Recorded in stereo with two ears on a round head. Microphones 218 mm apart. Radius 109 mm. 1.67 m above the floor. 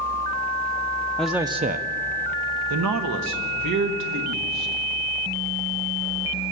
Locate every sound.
1.2 s a man speaking: 5° left (ahead or behind), 0.6 m; by 4.7 s 80° right, 2.5 m